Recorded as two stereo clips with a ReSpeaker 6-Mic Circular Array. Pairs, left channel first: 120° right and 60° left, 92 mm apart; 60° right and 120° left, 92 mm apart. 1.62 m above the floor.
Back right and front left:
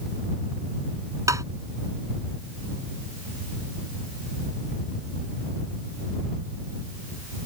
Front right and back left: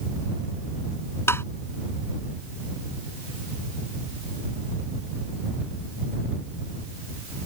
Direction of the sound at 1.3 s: 5° left.